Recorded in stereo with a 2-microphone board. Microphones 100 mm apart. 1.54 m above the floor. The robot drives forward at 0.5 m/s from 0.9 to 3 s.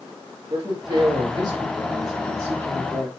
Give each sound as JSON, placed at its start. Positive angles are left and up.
{"t": 0.5, "sound": "a man speaking", "side_deg": -50, "distance_m": 2.5}